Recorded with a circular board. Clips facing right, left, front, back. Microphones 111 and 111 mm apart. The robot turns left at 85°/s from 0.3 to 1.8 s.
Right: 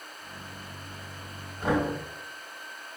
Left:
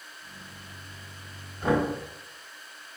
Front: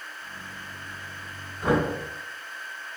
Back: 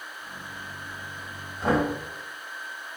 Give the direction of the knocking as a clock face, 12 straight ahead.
5 o'clock.